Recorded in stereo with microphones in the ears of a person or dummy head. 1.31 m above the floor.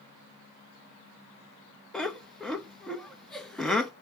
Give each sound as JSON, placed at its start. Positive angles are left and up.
{"t": 1.9, "sound": "laughter", "side_deg": 0, "distance_m": 1.2}